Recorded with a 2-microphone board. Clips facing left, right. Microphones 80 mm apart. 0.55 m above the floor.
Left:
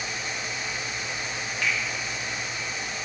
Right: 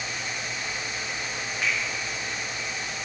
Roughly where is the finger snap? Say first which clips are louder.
Even; right.